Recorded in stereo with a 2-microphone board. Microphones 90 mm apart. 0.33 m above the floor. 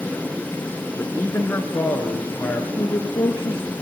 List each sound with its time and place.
1.0 s a man speaking: 25° left (ahead or behind), 4 m; by 2.7 s 15° left (ahead or behind), 5 m
2.8 s a woman speaking: 40° left (ahead or behind), 5 m